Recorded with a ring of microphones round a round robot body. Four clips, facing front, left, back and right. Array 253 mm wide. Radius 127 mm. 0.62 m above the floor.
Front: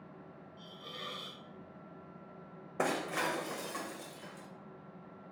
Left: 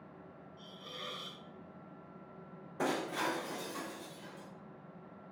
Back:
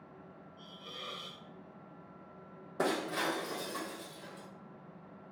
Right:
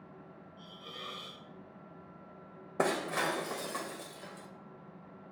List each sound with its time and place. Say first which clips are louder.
0.6 s a hiss: right 1 dB, front 1 dB; 35° left, 0.8 m
2.8 s breaking glass: right 3 dB, back 1 dB; 80° right, 0.5 m